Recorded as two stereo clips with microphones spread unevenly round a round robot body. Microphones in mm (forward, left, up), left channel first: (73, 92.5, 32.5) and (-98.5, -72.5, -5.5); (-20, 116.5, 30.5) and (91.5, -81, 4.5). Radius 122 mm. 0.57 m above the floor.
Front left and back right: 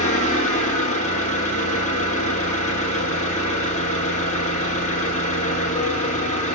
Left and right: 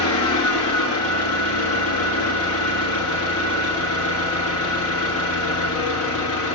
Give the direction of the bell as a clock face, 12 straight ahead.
I don't hear a bell.